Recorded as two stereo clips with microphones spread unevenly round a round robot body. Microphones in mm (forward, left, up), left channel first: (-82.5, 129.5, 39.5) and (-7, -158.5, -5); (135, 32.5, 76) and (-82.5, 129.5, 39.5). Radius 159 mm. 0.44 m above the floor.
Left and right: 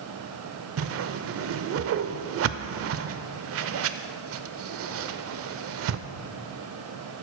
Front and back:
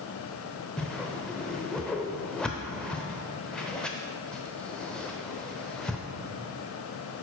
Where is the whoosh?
115° right, 0.5 m.